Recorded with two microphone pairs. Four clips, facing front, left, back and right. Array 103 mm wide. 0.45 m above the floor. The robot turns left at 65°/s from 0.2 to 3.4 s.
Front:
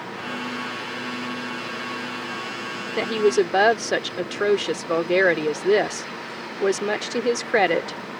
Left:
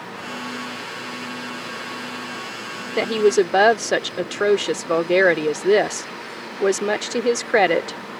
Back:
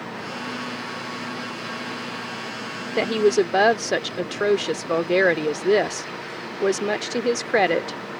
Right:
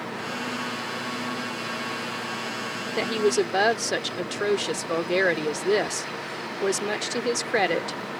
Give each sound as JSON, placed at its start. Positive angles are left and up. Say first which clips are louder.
{"t": 3.0, "sound": "a woman speaking", "louder": "left 6 dB, back 1 dB", "azimuth_deg": 115}